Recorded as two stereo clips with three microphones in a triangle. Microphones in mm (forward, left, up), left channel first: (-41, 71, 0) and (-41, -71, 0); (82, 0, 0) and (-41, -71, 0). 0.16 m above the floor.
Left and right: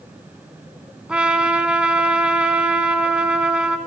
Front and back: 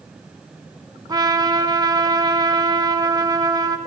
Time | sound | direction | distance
1.1 | a trumpet | 165° right | 0.6 m